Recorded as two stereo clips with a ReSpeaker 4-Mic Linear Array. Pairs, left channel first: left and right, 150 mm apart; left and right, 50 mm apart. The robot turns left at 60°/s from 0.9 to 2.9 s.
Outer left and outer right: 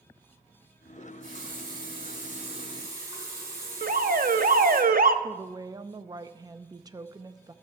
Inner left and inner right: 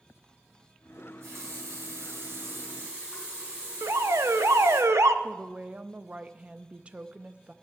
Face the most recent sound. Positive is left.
turn(degrees=-25)  # may be behind; listen again after turning